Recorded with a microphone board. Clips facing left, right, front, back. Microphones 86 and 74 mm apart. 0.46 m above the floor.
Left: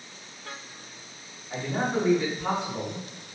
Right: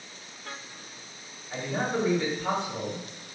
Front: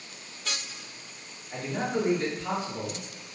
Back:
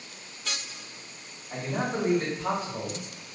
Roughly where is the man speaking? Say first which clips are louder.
Left 2 dB, even; behind.